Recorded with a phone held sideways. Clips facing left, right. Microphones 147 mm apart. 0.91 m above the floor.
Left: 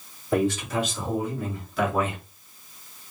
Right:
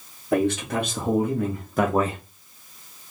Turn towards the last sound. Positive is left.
turn(degrees=-30)  # may be behind; listen again after turning